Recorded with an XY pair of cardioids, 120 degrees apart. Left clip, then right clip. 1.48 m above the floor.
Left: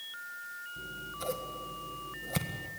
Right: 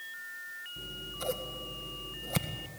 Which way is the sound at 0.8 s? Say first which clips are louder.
Even; 10° right.